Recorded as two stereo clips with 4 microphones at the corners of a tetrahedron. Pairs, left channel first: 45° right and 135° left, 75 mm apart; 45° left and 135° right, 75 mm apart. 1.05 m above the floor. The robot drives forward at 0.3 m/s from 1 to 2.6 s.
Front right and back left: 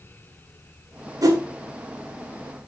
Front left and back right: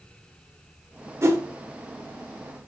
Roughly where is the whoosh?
Behind.